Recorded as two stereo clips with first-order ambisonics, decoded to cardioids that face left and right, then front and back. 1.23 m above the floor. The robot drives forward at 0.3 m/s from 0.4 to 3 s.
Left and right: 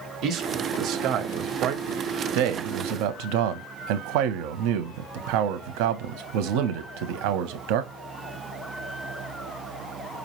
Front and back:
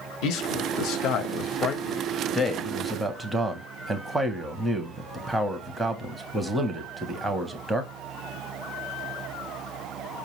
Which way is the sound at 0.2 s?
35° right.